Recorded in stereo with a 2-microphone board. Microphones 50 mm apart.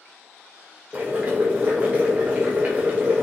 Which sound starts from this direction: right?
Boiling, at 0.9 s.